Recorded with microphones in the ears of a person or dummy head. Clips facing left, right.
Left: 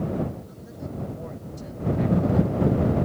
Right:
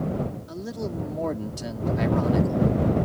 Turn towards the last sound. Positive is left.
turn(degrees=-75)  # may be behind; listen again after turning